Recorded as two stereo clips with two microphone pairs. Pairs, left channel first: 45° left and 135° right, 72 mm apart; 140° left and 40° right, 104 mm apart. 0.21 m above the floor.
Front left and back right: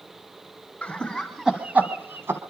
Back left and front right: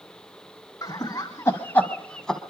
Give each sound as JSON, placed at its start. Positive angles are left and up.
{"t": 0.8, "sound": "laughter", "azimuth_deg": 115, "distance_m": 1.3}